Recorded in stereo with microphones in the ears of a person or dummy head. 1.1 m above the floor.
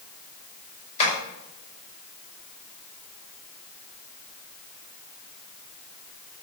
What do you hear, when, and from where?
1.0 s tapping: 40° left (ahead or behind), 6 m